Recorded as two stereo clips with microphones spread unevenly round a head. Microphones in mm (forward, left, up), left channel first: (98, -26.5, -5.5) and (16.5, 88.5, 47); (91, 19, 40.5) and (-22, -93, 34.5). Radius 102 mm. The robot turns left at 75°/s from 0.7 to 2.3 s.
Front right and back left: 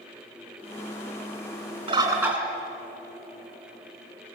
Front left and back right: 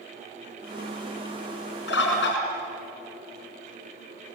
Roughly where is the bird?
Left.